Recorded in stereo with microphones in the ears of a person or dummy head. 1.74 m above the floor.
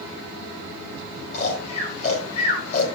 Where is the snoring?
45° left (ahead or behind), 3.5 m.